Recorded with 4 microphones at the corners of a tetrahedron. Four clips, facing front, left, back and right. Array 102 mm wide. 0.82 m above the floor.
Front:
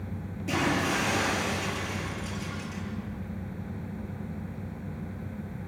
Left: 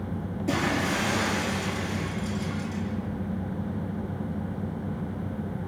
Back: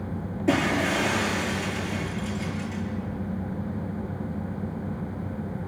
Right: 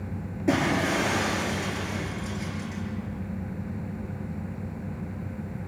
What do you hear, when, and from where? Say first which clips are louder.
0.5 s breaking glass: right 3 dB, back 4 dB; 140° right, 8 m